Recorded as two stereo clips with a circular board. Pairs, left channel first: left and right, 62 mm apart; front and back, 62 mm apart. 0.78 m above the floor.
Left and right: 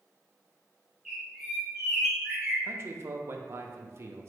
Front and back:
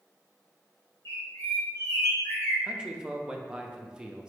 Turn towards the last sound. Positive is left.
turn(degrees=-105)